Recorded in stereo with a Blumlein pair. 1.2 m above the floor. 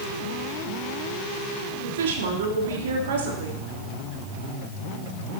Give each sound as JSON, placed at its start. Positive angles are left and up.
{"t": 1.8, "sound": "a woman speaking", "azimuth_deg": -60, "distance_m": 2.5}